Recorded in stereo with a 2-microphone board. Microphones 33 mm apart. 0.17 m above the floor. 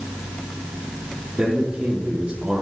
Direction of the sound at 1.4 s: 25° right (ahead or behind).